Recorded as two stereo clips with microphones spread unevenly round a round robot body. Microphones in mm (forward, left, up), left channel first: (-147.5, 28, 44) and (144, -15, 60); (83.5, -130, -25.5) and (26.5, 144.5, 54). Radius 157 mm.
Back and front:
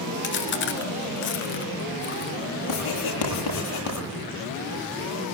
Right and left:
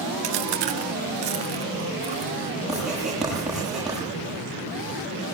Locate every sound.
0.2 s chewing: 120° left, 2 m
2.7 s writing: 170° right, 9.5 m